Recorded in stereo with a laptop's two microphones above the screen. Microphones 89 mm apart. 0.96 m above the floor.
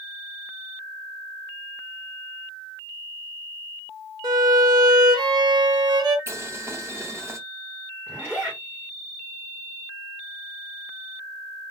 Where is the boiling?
30° right (ahead or behind), 0.5 m.